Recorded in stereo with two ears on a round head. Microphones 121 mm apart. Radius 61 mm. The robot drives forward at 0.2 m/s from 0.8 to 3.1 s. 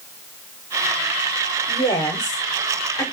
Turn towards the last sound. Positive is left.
turn(degrees=25)  # may be behind; listen again after turning